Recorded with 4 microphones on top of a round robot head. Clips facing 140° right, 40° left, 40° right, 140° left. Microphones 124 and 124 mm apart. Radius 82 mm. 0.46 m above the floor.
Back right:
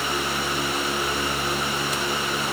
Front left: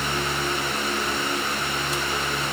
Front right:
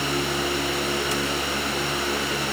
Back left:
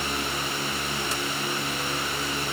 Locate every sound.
Only background noise.